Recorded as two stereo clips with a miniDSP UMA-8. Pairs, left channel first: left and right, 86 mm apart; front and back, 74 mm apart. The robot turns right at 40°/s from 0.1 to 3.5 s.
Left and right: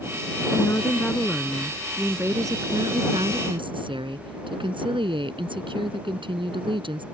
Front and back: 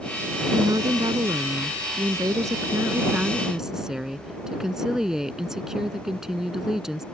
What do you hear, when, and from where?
0.5 s a woman speaking: 140° left; by 7.0 s 100° right